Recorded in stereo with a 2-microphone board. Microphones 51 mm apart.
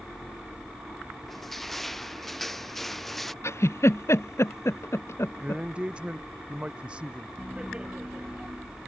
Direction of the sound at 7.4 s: 20° right (ahead or behind).